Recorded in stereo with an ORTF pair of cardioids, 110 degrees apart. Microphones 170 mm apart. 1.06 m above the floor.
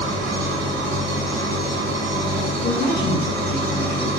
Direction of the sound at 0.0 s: 65° right.